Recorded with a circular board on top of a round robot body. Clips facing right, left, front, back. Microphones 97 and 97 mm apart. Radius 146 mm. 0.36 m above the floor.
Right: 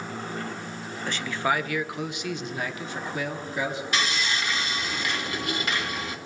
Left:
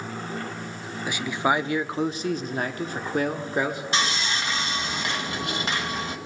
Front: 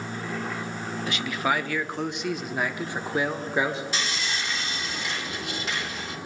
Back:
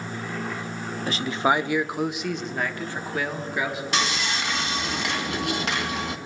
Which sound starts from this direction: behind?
A man speaking, at 1.1 s.